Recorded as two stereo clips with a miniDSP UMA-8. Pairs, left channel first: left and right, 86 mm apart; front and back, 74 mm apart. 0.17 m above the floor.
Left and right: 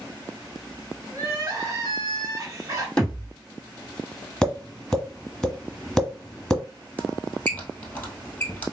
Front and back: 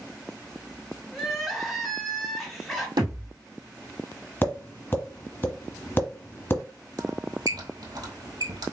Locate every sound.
1.1 s crying: 90° right, 2 m
3.0 s a thud: 170° left, 1.9 m
4.4 s tapping: 15° left, 1.4 m
7.0 s a squeak: 160° left, 1.7 m